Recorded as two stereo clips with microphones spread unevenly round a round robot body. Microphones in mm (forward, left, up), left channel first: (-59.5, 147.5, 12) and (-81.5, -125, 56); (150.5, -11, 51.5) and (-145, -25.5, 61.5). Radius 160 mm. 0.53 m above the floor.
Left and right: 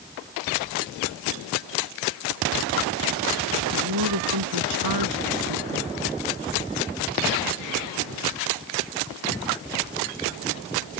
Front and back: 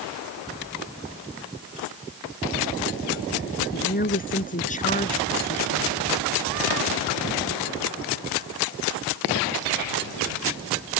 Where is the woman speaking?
55° right; by 5.9 s 70° right.